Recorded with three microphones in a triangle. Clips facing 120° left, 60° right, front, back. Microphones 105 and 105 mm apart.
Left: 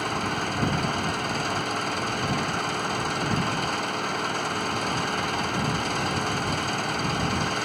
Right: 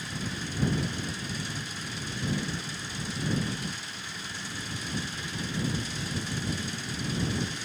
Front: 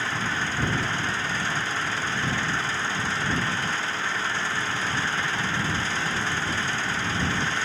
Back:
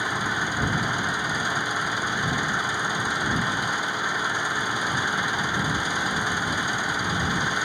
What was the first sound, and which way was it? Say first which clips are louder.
An engine running: left 9 dB, back 2 dB; 105° left.